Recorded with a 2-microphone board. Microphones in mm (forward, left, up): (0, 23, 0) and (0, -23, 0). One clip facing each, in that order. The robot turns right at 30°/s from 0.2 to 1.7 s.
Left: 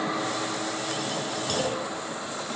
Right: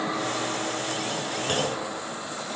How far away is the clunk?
About 6 m.